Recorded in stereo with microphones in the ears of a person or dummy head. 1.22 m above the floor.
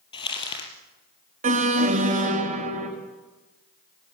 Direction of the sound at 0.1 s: 25° left (ahead or behind).